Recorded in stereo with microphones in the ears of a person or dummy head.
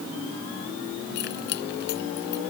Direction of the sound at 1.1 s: 55° left (ahead or behind).